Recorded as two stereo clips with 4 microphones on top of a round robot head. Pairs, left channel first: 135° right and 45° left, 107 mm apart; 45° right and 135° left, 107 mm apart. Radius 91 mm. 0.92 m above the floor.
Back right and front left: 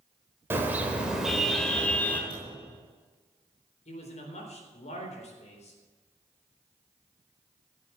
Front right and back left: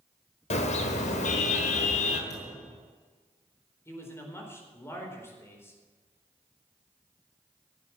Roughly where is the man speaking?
Behind right.